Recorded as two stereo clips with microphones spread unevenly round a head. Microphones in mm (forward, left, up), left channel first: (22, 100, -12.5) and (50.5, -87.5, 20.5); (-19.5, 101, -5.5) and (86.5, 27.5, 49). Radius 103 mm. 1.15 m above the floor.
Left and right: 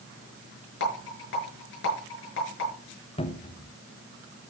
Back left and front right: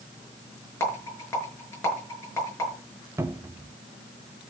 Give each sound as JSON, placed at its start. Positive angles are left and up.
{"t": 0.8, "sound": "a rattle", "azimuth_deg": 75, "distance_m": 5.5}
{"t": 3.2, "sound": "a cupboard door", "azimuth_deg": 45, "distance_m": 1.1}